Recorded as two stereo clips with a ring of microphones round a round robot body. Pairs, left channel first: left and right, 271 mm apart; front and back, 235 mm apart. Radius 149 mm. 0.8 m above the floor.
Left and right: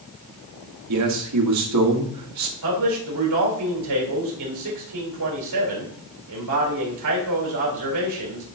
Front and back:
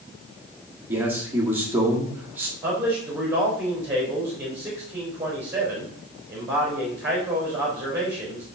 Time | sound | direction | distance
0.9 | a man speaking | 100° right | 2 m
2.6 | a man speaking | 95° right | 4 m